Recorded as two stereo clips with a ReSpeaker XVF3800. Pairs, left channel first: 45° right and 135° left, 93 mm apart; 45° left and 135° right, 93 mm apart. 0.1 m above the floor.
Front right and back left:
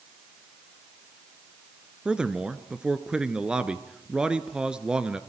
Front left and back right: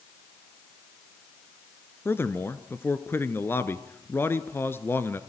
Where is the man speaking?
65° left, 1.2 m.